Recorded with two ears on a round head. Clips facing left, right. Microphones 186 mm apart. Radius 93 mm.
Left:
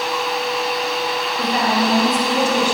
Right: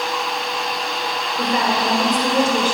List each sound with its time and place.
1.4 s a woman speaking: 50° right (ahead or behind), 3 m; by 2.7 s 45° right (ahead or behind), 3.5 m